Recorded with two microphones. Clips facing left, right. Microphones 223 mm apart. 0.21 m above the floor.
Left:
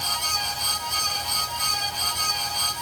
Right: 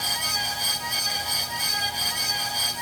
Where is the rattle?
I don't hear a rattle.